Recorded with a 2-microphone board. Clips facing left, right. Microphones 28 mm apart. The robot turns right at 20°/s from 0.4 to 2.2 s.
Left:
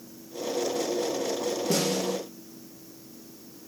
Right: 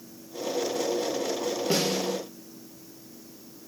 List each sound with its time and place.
1.7 s a snare drum: 30° right (ahead or behind), 1.9 m; by 2.2 s 20° right (ahead or behind), 1.9 m